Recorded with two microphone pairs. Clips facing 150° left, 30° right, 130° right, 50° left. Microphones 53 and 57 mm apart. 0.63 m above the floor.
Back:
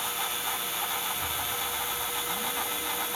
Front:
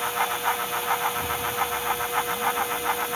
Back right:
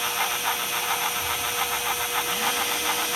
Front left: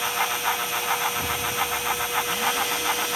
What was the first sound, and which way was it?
An explosion, 25° left.